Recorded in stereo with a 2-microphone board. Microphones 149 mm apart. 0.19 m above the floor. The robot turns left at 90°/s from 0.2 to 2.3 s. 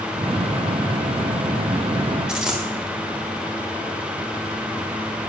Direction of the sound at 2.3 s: 5° right (ahead or behind).